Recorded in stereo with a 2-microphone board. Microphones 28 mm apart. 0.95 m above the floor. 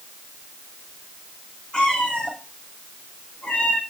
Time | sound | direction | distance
1.7 | a cat meowing | 30° left (ahead or behind) | 4.5 m